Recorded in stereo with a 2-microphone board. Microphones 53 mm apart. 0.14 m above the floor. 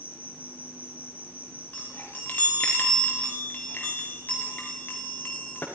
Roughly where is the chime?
Left.